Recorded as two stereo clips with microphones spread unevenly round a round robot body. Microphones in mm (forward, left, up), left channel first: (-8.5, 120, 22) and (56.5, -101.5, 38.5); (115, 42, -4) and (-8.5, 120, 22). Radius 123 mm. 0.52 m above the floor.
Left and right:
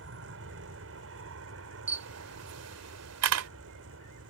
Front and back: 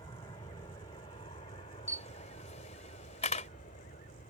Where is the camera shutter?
85° right.